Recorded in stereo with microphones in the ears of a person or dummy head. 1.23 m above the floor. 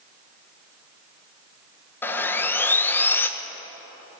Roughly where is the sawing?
Centre.